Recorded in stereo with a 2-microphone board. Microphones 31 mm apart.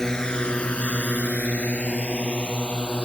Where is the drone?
20° left (ahead or behind); by 3.1 s 35° left (ahead or behind).